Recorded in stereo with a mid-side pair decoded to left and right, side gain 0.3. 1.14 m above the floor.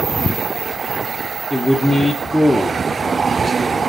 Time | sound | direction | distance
1.5 | a man speaking | 5° left | 0.5 m